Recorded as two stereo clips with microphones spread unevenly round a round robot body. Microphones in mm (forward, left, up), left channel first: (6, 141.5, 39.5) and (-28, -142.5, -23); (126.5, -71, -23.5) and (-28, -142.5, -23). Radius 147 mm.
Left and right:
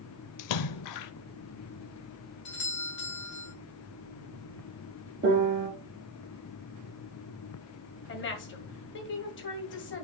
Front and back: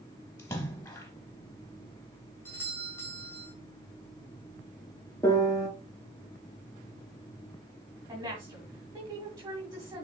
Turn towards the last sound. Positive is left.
turn(degrees=135)